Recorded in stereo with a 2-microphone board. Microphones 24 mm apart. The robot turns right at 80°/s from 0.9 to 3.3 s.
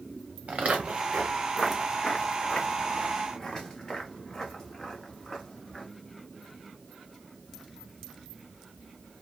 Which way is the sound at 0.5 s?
75° right (ahead or behind).